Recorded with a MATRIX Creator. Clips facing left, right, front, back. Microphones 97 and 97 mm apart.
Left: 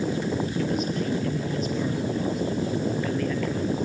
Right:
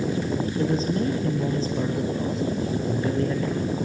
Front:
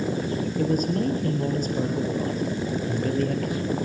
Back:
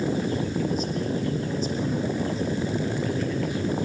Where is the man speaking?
30° right, 2.5 m.